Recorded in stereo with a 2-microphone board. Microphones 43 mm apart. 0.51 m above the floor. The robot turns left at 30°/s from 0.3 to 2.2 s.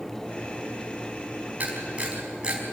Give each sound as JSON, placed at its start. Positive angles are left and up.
{"t": 1.6, "sound": "a camera shutter", "side_deg": -40, "distance_m": 4.5}